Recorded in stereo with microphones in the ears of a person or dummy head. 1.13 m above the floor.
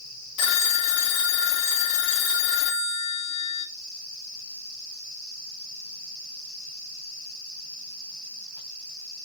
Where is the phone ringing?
65° left (ahead or behind), 0.6 m.